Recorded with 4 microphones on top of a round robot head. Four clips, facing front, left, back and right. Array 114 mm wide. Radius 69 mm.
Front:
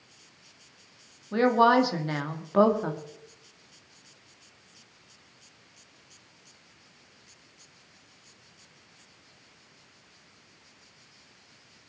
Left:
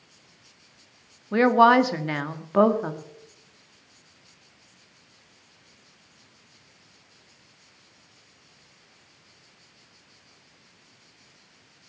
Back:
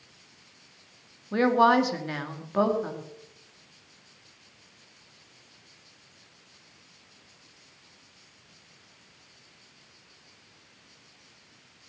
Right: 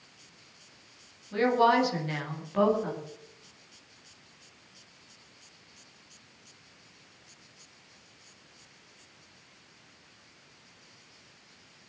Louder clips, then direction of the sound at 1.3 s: Left 7 dB, even; 90° left.